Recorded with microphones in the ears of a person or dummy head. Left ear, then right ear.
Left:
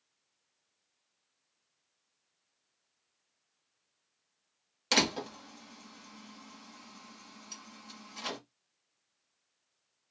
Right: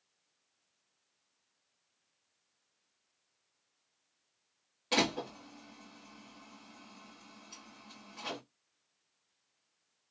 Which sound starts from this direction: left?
A door slam, at 4.9 s.